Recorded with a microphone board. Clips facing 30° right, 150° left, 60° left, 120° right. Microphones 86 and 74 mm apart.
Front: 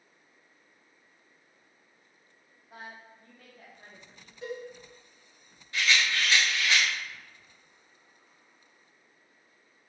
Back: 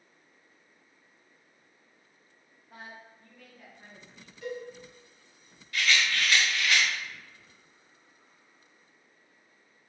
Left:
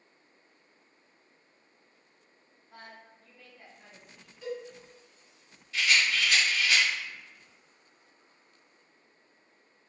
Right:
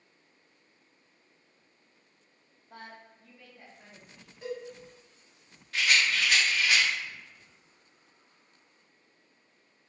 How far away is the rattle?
About 1.0 m.